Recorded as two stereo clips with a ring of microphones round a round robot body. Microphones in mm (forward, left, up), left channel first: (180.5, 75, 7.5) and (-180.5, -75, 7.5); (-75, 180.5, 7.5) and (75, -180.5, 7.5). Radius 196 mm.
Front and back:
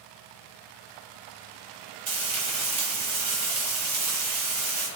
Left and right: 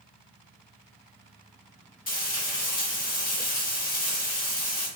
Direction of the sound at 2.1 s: 165° left.